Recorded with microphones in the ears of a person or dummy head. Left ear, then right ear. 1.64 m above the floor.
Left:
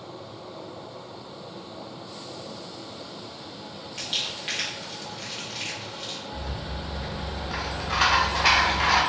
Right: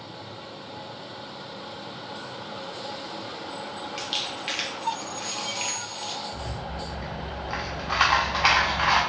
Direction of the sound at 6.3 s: 30° right (ahead or behind).